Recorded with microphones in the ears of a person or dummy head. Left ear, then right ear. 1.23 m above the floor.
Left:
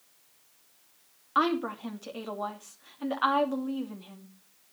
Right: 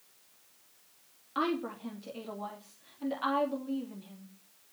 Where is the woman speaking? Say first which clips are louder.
Left 6 dB; 40° left (ahead or behind), 2.5 m.